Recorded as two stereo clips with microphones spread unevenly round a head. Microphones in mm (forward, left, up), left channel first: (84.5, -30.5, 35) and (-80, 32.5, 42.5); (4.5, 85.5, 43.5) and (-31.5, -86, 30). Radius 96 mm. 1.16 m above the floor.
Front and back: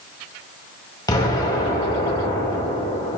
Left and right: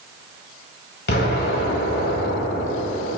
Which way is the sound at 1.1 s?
45° left.